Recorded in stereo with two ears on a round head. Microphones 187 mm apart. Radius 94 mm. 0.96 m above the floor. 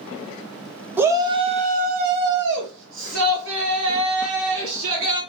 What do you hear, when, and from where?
1.0 s a shout: 10° right (ahead or behind), 0.8 m; by 5.2 s 70° right (ahead or behind), 2.5 m